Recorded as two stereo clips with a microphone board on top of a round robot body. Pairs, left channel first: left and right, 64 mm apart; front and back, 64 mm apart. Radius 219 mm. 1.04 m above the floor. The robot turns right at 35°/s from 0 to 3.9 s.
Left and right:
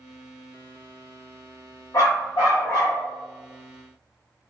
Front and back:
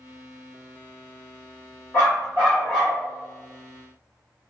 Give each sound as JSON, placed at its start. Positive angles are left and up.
{"t": 1.9, "sound": "a dog barking", "azimuth_deg": 50, "distance_m": 0.6}